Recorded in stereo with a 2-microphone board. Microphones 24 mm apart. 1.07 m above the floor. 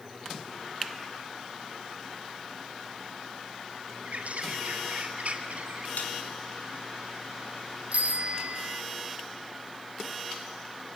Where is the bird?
65° right (ahead or behind), 4.5 m.